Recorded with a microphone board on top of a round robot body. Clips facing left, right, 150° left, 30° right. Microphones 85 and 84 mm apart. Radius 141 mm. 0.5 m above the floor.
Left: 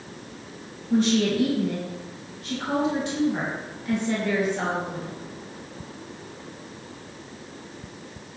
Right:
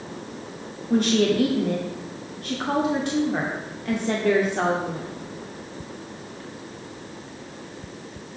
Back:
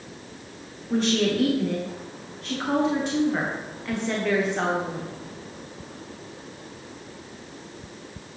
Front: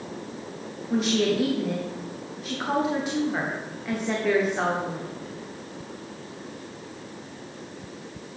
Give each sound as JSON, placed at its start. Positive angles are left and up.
{"t": 0.9, "sound": "a woman speaking", "azimuth_deg": -115, "distance_m": 1.4}